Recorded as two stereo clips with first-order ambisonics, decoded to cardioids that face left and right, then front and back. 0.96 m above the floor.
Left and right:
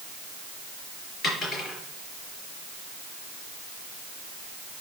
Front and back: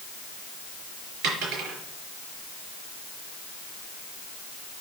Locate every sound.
1.2 s a dropped coin: 150° left, 5 m